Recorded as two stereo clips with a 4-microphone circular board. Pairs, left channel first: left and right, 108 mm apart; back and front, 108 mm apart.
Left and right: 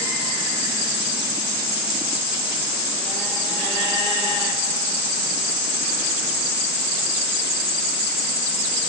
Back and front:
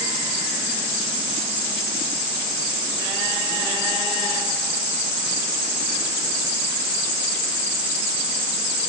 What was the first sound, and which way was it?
Only background noise.